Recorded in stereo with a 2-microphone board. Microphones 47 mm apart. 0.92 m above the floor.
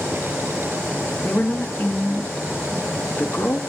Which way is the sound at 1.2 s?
30° left (ahead or behind).